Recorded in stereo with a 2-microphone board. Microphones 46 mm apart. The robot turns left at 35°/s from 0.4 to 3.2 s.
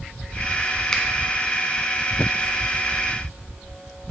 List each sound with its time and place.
0.9 s a finger snap: 10° left (ahead or behind), 0.9 m; by 1.0 s 15° left (ahead or behind), 0.9 m